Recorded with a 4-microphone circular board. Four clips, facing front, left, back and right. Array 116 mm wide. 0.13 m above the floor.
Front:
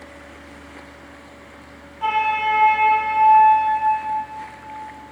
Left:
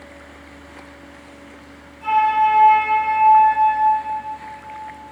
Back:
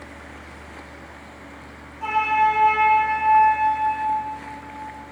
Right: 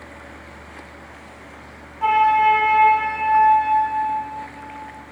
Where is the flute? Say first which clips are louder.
Right 1 dB, back 1 dB; 75° right, 3 m.